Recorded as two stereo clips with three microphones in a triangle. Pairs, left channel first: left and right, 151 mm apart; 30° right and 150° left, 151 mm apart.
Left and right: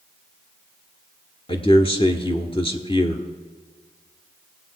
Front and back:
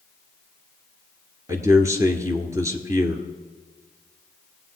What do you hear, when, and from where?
1.5 s a man speaking: 95° left, 1.5 m